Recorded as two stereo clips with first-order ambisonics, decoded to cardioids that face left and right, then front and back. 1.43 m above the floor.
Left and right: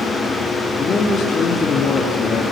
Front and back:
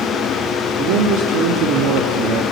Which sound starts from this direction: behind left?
A man speaking, at 0.8 s.